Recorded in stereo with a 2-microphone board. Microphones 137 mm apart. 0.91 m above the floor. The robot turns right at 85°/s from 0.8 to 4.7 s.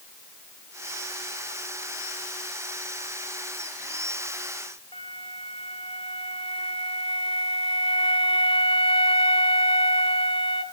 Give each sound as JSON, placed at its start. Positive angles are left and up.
{"t": 4.9, "sound": "a flute", "side_deg": 40, "distance_m": 1.0}